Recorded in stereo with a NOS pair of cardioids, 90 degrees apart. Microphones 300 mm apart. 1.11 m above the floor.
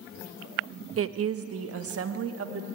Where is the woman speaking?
50° right, 1.2 m.